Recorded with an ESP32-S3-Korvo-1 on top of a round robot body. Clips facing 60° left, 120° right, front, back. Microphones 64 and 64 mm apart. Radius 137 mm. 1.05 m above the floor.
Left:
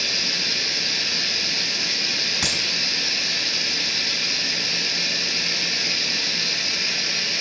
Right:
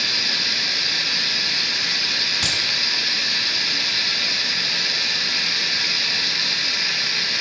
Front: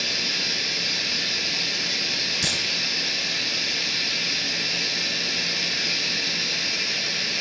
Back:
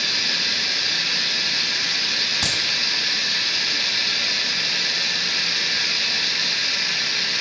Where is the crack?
130° left, 4 m.